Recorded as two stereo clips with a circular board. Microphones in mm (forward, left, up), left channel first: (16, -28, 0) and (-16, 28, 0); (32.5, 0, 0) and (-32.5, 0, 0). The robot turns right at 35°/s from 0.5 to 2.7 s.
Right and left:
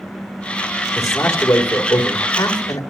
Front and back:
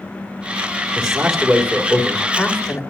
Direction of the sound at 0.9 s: 110° right.